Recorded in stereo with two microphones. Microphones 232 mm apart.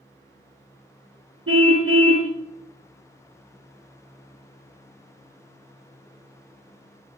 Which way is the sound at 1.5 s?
80° right.